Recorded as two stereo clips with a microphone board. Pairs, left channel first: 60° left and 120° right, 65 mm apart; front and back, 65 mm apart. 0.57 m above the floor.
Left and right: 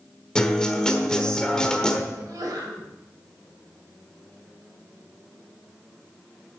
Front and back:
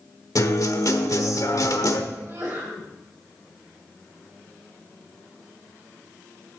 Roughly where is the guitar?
Ahead.